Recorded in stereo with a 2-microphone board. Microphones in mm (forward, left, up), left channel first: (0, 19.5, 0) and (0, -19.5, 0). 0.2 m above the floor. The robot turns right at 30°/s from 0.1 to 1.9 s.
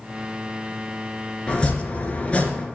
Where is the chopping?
20° left (ahead or behind), 2.5 m; by 2.6 s 30° left (ahead or behind), 2.5 m.